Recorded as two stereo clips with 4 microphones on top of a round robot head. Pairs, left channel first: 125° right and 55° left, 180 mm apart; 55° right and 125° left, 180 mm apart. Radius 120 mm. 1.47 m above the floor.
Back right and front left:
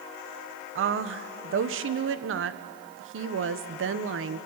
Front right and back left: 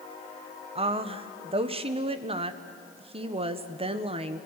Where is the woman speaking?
65° left, 1.4 m.